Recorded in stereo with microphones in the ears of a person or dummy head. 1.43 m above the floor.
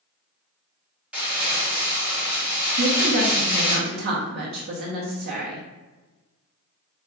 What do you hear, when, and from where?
1.1 s crumpling: 10° right (ahead or behind), 1.3 m
2.8 s a woman speaking: 55° right (ahead or behind), 0.9 m